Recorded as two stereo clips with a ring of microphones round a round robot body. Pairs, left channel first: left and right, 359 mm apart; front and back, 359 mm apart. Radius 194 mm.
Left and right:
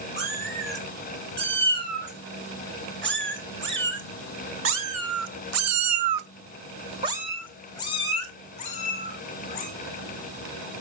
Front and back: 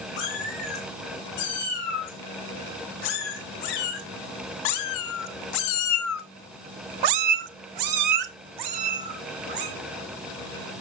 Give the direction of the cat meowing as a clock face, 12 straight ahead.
1 o'clock.